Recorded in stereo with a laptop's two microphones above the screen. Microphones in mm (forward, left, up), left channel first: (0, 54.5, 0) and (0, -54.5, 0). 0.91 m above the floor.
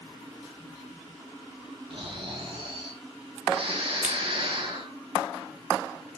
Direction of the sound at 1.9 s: 55° right (ahead or behind).